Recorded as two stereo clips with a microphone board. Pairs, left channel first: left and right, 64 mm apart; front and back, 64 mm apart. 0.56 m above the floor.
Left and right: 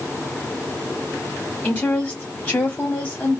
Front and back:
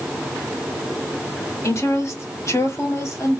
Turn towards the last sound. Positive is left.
turn(degrees=20)